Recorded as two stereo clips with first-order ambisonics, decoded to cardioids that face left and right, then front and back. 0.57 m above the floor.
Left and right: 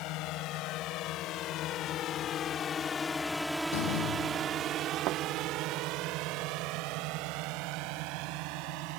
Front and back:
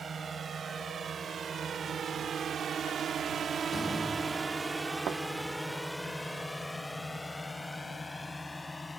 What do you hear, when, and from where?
0.0 s a drone: 115° left; by 9.0 s 85° right
3.7 s a door slam: 90° left
5.1 s a thud: 125° right